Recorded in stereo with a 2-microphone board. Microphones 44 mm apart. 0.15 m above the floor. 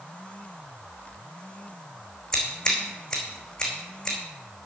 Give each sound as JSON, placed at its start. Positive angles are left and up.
{"t": 2.3, "sound": "scissors", "side_deg": 10, "distance_m": 4.0}